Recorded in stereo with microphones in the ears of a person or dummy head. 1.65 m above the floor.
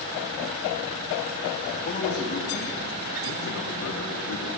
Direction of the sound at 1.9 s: 35° left (ahead or behind).